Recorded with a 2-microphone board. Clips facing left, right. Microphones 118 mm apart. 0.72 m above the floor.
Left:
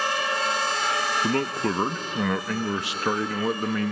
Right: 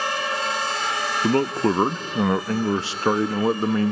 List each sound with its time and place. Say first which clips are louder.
1.2 s a man speaking: right 8 dB; 30° right (ahead or behind), 0.5 m